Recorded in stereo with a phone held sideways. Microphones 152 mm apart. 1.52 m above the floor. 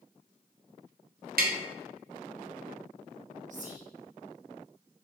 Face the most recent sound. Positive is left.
turn(degrees=-55)  # may be behind; listen again after turning